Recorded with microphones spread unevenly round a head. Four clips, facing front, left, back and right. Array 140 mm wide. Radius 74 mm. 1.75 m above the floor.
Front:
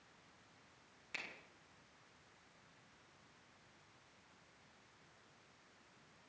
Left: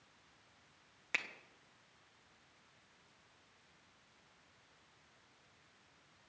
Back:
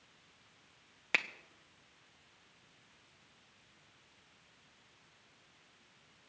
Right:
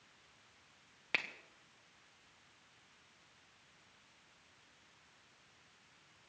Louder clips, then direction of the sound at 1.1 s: Right 2 dB, back 14 dB; 155° right.